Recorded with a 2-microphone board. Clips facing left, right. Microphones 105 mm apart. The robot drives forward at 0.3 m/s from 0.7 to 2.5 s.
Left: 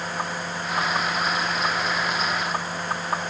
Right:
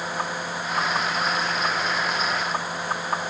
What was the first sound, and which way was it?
Only background noise.